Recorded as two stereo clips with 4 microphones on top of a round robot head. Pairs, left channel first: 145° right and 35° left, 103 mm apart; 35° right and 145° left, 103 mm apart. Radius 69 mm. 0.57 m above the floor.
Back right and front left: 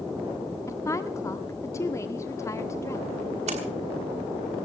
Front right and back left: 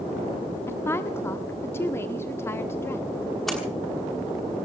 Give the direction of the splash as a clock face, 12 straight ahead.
10 o'clock.